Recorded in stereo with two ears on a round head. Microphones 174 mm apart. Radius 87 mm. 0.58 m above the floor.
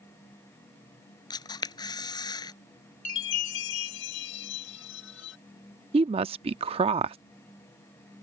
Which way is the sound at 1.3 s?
20° left (ahead or behind).